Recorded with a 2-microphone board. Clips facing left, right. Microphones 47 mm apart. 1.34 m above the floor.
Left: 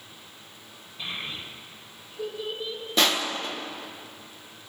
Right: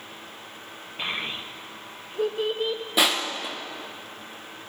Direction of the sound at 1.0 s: 65° right (ahead or behind).